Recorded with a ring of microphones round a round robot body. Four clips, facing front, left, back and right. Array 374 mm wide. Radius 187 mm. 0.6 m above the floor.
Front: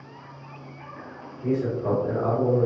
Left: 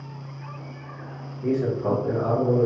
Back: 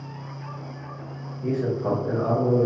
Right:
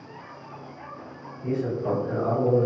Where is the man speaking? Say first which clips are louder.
Left 3 dB, even; 115° left, 1.4 m; by 2.7 s 135° right, 1.1 m.